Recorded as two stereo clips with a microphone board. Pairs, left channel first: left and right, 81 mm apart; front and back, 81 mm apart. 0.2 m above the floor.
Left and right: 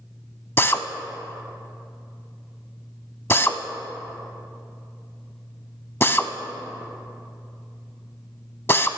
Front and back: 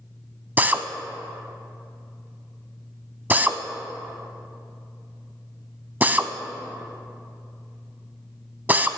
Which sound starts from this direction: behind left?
A drill, at 0.6 s.